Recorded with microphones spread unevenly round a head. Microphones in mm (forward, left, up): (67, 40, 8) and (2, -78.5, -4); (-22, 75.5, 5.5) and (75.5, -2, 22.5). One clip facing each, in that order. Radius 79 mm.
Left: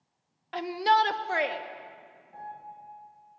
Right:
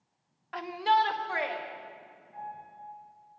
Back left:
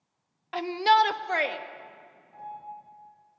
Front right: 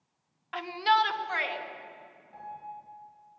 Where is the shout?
125° left, 0.8 m; by 1.6 s 110° left, 2 m.